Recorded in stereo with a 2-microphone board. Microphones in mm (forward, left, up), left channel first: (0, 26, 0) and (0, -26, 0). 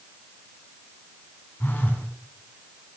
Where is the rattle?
I don't hear a rattle.